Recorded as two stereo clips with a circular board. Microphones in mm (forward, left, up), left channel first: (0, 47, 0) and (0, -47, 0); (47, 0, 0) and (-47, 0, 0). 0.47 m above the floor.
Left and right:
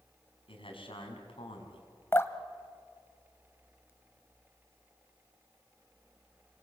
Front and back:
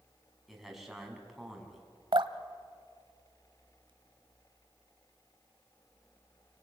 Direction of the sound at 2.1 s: 155° left.